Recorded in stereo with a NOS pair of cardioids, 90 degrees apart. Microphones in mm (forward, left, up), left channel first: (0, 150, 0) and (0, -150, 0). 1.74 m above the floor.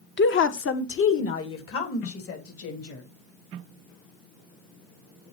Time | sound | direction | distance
0.2 | a woman speaking | 40° left | 1.2 m